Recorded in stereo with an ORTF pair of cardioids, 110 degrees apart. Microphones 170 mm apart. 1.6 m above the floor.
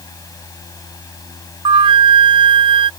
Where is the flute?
30° right.